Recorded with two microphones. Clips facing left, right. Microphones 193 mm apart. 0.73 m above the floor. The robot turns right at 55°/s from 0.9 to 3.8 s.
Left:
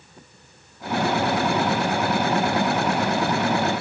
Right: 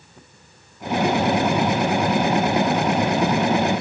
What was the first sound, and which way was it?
Only background noise.